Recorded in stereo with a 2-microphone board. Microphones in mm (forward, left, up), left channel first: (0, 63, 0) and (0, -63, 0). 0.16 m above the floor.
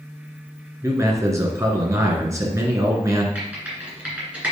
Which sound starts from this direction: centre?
Typing on a keyboard, at 3.4 s.